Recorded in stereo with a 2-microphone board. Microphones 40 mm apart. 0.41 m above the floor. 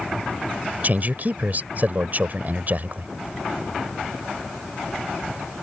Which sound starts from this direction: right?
A man speaking, at 0.8 s.